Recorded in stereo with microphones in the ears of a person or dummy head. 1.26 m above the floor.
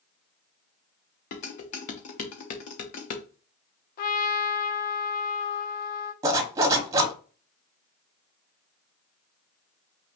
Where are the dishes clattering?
40° left (ahead or behind), 0.9 m.